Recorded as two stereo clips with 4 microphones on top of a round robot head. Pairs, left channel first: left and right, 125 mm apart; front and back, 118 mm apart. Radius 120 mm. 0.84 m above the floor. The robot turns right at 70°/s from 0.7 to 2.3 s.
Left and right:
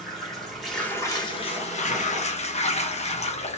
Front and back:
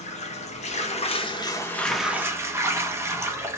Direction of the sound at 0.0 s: Straight ahead.